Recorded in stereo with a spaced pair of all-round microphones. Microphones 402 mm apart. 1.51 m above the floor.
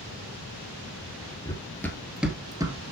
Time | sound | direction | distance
1.4 | running footsteps | 10° left (ahead or behind) | 1.6 m